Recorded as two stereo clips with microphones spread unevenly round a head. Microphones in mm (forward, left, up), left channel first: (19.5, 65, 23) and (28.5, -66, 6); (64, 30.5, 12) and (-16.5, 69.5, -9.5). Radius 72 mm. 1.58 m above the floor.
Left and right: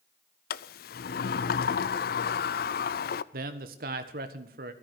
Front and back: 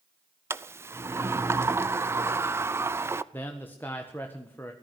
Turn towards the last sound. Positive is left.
turn(degrees=-105)